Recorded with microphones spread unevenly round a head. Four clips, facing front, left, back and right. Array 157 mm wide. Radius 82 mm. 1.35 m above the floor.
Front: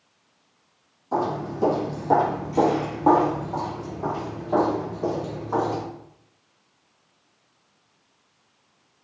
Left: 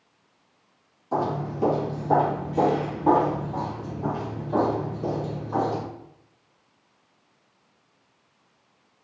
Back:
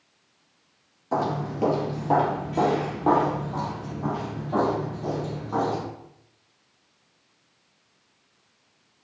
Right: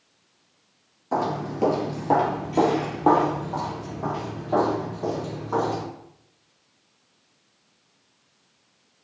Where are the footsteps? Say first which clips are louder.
Right 1 dB, front 1 dB; 130° right, 1.6 m; by 5.8 s 65° right, 4.5 m.